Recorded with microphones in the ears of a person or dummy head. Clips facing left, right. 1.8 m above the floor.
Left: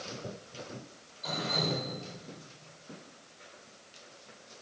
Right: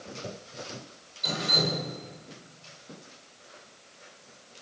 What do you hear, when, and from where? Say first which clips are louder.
1.2 s dripping: right 3 dB; 35° right (ahead or behind), 8.5 m